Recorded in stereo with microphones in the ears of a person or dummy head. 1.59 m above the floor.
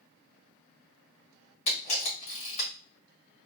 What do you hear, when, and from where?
1.7 s a camera shutter: 35° left (ahead or behind), 1.8 m